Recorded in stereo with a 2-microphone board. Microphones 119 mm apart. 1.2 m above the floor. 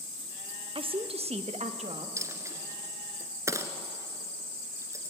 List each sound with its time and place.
0.8 s a woman speaking: 45° right (ahead or behind), 0.8 m; by 2.1 s 65° right (ahead or behind), 1.7 m
2.2 s a dropped coin: 25° right (ahead or behind), 1.4 m